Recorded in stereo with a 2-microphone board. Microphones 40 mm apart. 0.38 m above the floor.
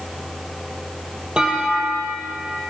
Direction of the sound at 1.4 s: 25° right (ahead or behind).